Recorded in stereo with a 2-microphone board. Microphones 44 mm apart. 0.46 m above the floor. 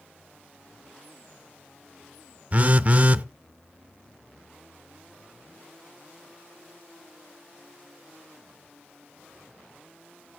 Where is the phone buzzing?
35° right (ahead or behind), 0.5 m.